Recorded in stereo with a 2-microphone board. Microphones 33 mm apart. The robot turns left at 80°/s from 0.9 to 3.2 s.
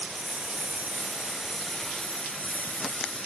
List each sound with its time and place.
0.0 s a lawn mower: 125° right; by 3.3 s 50° left